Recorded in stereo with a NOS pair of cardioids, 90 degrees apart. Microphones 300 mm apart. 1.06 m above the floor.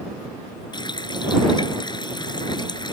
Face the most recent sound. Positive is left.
turn(degrees=15)